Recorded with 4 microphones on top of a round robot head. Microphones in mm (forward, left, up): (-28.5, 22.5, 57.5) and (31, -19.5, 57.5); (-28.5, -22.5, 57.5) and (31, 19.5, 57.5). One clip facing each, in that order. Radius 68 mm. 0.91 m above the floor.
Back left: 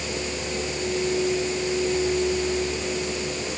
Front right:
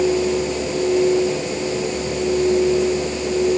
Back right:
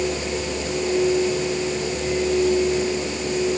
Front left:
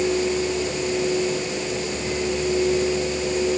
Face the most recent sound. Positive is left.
No sound to turn to.